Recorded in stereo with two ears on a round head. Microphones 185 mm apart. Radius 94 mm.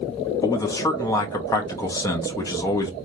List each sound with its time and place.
0.4 s a man speaking: 15° left (ahead or behind), 0.7 m